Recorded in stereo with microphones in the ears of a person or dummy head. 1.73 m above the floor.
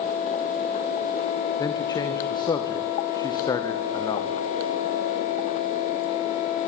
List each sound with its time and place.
1.6 s a man speaking: 25° left (ahead or behind), 2 m